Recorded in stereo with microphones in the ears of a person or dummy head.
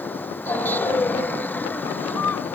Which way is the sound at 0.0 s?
5° left (ahead or behind).